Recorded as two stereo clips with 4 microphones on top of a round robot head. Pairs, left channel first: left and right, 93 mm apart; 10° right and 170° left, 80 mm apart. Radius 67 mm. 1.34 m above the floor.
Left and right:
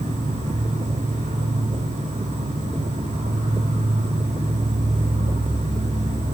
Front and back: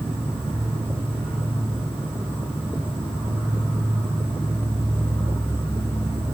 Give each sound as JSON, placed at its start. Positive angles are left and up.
{"t": 0.0, "sound": "an insect", "azimuth_deg": -85, "distance_m": 7.5}